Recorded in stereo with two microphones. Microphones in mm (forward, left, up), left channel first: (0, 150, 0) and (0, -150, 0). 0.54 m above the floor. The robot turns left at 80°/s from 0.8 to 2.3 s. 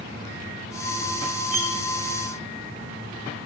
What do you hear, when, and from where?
1.5 s cutlery clinking: 85° left, 9 m; by 1.8 s 75° left (ahead or behind), 9 m